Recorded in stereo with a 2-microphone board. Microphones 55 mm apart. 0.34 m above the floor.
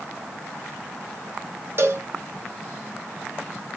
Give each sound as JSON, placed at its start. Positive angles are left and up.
{"t": 1.8, "sound": "a cowbell", "side_deg": -50, "distance_m": 0.6}